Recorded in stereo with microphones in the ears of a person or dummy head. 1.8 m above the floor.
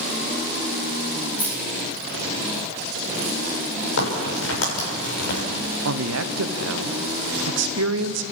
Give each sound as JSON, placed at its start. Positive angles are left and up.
{"t": 1.4, "sound": "keys jangling", "side_deg": 10, "distance_m": 3.0}
{"t": 4.0, "sound": "a crack", "side_deg": 85, "distance_m": 6.0}
{"t": 5.8, "sound": "a man speaking", "side_deg": -75, "distance_m": 1.2}